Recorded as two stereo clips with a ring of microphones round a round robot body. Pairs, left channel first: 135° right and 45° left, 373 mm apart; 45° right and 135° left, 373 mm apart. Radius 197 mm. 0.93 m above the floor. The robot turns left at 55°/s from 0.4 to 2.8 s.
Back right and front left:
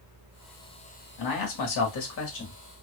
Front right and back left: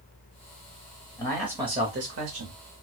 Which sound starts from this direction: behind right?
A man speaking, at 1.2 s.